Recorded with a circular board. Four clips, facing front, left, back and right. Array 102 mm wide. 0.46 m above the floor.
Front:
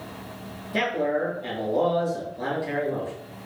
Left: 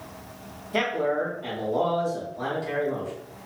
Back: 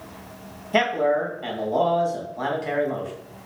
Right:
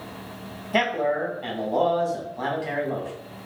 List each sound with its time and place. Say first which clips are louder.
0.7 s a man speaking: right 2 dB, back 4 dB; 150° right, 2.0 m